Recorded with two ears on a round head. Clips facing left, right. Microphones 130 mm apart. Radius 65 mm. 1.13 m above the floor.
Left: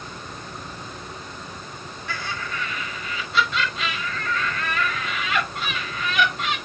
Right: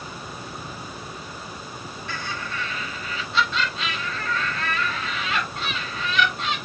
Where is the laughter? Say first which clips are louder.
Left 2 dB; 55° left (ahead or behind), 6 m.